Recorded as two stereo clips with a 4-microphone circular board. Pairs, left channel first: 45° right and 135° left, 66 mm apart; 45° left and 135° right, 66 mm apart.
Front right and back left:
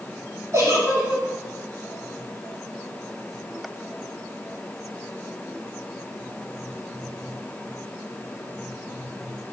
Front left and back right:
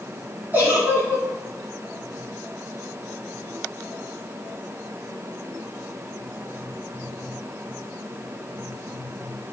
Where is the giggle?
165° left, 1.7 m.